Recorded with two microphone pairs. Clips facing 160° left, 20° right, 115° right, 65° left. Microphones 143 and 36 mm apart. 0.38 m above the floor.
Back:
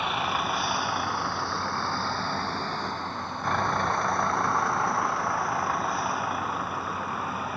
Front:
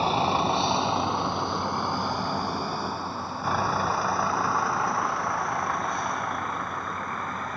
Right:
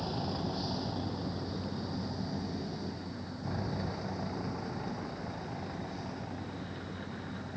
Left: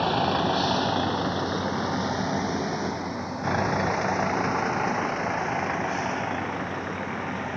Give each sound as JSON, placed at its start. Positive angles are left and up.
{"t": 0.0, "sound": "a vehicle", "azimuth_deg": 35}